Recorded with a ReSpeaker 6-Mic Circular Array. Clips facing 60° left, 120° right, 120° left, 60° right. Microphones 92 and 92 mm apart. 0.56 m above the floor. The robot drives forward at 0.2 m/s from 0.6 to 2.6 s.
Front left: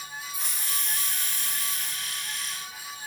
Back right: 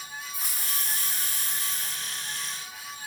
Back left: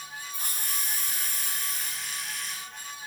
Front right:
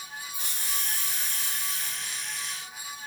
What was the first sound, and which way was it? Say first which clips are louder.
A hiss: even, back left 1 dB; 150° left.